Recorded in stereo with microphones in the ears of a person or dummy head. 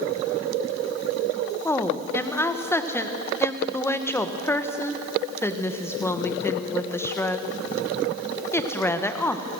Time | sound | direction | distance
1.6 | a woman speaking | 10° left (ahead or behind) | 1.1 m